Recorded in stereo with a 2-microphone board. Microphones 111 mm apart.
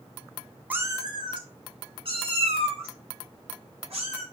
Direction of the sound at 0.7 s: 15° right (ahead or behind).